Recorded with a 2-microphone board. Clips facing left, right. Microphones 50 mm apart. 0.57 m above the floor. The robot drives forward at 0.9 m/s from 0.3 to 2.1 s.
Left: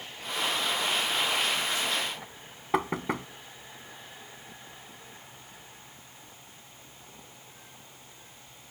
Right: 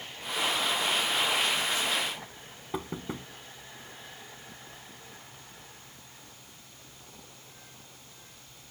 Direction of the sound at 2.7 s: 70° left (ahead or behind).